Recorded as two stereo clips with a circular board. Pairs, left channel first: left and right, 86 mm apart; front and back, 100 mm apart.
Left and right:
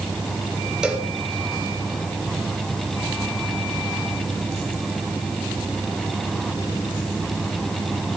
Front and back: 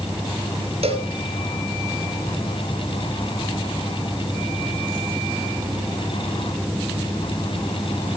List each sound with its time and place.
0.8 s a cowbell: 170° right, 2.5 m